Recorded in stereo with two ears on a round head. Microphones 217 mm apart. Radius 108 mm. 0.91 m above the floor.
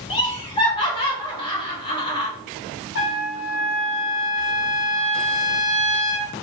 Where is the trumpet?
50° left (ahead or behind), 0.7 m.